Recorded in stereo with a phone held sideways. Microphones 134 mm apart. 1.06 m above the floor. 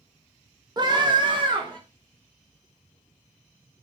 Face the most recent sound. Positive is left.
turn(degrees=-35)  # may be behind; listen again after turning